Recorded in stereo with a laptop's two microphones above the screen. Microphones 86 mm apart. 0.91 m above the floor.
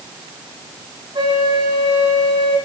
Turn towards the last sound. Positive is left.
turn(degrees=-75)  # may be behind; listen again after turning